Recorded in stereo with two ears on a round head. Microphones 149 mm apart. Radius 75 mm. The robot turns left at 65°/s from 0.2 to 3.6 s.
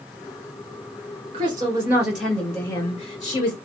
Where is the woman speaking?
130° right, 2 m; by 3.5 s 90° left, 2 m.